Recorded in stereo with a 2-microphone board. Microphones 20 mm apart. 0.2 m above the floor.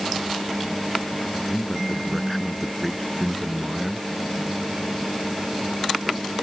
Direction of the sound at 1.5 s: 5° left (ahead or behind).